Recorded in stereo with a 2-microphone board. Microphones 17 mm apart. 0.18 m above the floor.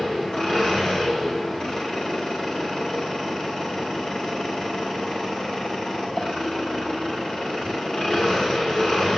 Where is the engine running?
70° left (ahead or behind), 9 m.